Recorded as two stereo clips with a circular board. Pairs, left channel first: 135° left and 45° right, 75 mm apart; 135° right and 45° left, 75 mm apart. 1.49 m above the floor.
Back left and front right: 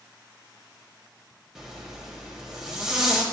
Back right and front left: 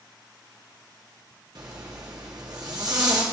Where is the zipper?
35° left, 1.4 m.